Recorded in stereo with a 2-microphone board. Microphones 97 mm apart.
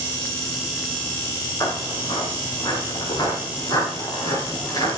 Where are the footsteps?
40° left (ahead or behind), 5 m.